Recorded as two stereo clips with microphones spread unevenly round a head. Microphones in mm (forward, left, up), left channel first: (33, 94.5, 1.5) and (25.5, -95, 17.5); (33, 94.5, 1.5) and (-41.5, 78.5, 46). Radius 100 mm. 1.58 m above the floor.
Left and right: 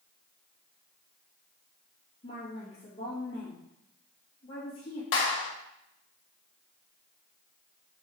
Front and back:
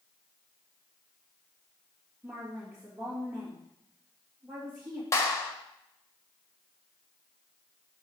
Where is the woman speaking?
150° left, 2.0 m.